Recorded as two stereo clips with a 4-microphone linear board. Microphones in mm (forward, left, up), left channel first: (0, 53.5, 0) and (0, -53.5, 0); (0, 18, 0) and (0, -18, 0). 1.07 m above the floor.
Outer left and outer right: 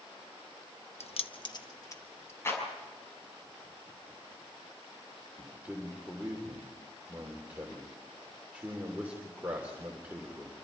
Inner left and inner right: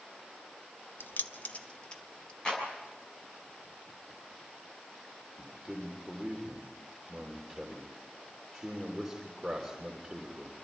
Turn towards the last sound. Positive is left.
turn(degrees=-15)  # may be behind; listen again after turning